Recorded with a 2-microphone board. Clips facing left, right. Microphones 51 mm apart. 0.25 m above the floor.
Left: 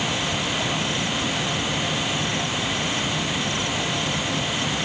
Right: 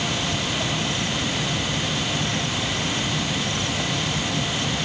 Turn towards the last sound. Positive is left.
No sound to turn to.